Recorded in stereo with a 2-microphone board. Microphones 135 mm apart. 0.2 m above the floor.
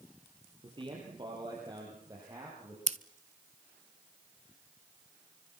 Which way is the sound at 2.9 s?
55° right (ahead or behind).